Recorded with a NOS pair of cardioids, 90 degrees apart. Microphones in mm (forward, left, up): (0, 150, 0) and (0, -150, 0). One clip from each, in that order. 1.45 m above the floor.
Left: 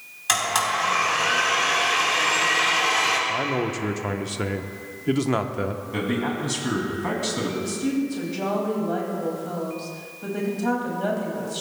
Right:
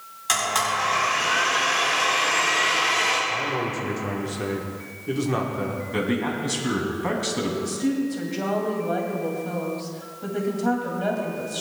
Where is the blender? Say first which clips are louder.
Even; 30° left, 4 m.